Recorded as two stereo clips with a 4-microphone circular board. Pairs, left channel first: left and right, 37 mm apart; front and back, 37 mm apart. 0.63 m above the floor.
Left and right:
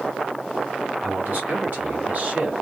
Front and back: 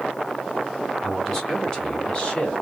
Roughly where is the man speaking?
Right.